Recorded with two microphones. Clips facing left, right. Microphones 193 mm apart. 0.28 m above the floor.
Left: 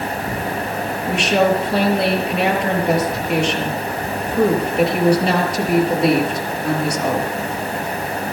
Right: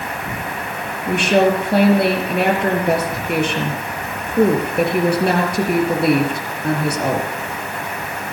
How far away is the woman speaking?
About 5.5 m.